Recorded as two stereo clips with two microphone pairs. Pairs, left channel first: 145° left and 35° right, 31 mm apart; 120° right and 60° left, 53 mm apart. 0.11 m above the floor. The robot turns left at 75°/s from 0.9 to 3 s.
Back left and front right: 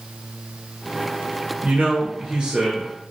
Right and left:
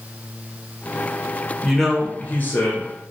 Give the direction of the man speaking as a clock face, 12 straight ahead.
1 o'clock.